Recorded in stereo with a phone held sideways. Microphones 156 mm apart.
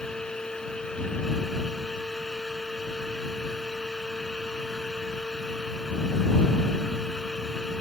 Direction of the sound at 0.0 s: 5° left (ahead or behind).